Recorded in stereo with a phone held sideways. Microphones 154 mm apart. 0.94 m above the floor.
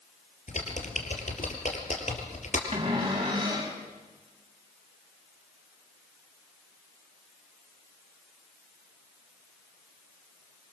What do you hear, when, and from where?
0.5 s typing on a keyboard: 55° left (ahead or behind), 4 m
2.7 s a cupboard door: 35° right (ahead or behind), 6 m